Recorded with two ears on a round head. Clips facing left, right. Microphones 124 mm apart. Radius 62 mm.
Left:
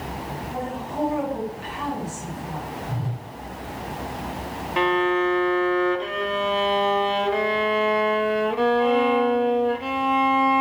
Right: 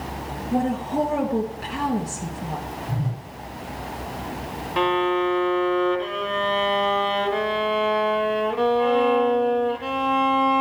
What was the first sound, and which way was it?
A woman speaking, 55° right (ahead or behind).